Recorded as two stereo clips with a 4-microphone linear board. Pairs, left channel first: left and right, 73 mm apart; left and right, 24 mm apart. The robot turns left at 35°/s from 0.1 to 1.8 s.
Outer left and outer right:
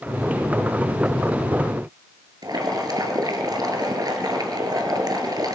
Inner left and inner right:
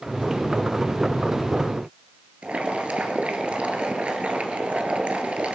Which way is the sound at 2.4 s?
65° right (ahead or behind).